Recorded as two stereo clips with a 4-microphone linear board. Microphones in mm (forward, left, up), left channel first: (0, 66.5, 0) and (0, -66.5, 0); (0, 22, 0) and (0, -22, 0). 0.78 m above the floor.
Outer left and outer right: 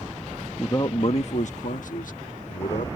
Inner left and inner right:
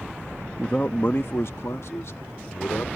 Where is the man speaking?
20° left (ahead or behind); by 2.9 s 70° left (ahead or behind).